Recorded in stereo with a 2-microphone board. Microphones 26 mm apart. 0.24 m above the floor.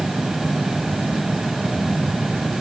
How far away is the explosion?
I don't hear an explosion.